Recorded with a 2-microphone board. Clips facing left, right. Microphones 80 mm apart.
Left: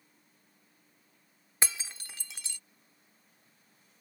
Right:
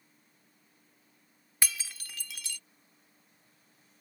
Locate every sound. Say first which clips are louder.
1.6 s breaking glass: left 1 dB; 25° left (ahead or behind)